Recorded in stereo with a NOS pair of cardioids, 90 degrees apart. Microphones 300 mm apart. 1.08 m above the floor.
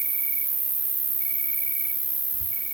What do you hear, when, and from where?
0.0 s an insect: 20° right, 3 m